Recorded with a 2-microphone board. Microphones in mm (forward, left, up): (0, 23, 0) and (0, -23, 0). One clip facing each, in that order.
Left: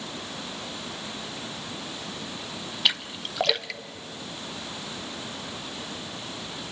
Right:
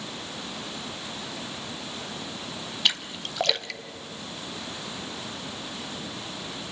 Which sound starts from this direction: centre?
A splash, at 2.9 s.